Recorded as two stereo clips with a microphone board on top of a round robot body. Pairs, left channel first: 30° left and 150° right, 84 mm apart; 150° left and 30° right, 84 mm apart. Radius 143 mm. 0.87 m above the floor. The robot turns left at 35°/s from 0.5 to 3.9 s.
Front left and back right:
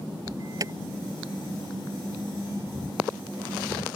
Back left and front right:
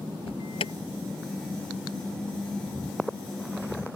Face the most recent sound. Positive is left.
turn(degrees=45)